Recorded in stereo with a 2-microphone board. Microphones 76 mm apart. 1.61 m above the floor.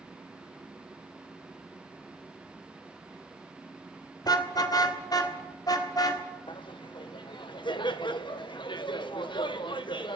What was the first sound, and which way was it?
A car horn, 60° left (ahead or behind).